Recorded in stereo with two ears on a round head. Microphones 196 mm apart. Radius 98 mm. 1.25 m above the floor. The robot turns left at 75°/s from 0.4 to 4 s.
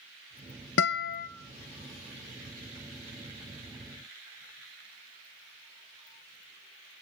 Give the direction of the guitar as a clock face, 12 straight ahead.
9 o'clock.